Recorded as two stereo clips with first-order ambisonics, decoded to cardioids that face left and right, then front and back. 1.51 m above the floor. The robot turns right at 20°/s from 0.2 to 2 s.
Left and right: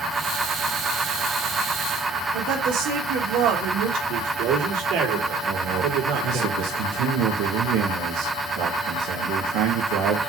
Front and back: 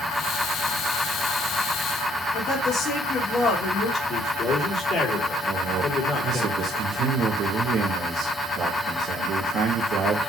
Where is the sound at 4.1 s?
60° right, 3.5 m.